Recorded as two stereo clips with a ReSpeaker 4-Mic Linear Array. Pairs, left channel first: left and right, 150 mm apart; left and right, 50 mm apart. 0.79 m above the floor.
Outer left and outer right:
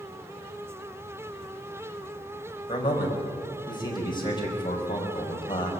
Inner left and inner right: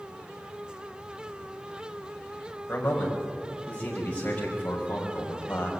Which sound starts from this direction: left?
A man speaking, at 2.7 s.